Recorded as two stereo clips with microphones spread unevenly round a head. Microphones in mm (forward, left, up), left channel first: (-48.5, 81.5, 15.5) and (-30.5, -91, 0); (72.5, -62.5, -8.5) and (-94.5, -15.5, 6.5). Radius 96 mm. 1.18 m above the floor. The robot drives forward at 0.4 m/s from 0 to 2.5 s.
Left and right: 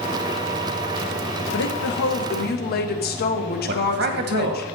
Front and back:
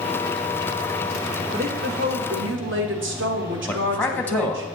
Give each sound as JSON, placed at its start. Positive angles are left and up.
{"t": 1.5, "sound": "a woman speaking", "azimuth_deg": 110, "distance_m": 0.9}
{"t": 3.7, "sound": "a man speaking", "azimuth_deg": -95, "distance_m": 1.4}